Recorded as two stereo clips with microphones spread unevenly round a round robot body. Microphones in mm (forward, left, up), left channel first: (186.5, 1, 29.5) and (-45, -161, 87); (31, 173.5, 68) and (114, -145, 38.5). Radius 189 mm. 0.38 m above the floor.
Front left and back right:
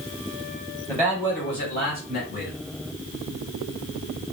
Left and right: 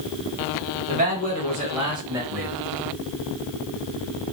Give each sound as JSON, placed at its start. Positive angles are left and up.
{"t": 0.9, "sound": "a man speaking", "azimuth_deg": -40, "distance_m": 2.0}